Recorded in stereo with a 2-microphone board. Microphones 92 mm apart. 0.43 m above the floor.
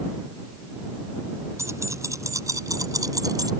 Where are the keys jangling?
30° right (ahead or behind); by 3.5 s 40° right (ahead or behind).